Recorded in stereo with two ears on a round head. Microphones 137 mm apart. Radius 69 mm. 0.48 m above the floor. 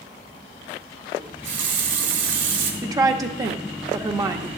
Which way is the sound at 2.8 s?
25° right (ahead or behind).